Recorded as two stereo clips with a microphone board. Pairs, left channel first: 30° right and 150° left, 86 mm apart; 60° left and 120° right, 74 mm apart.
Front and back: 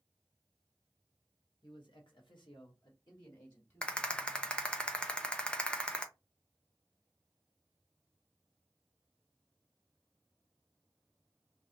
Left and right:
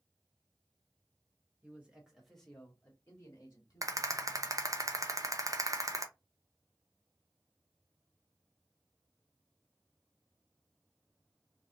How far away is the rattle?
About 0.6 m.